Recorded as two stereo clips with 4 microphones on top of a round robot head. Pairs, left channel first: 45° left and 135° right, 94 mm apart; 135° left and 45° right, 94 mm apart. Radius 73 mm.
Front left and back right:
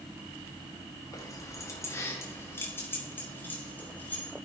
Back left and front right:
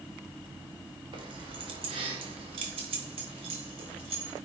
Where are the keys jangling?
10° right, 2.5 m; by 4.3 s 30° right, 4 m.